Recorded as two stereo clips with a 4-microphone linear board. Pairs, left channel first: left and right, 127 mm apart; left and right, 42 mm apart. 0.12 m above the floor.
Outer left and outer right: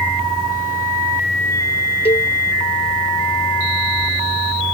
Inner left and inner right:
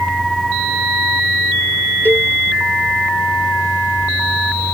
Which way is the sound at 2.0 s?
50° left (ahead or behind).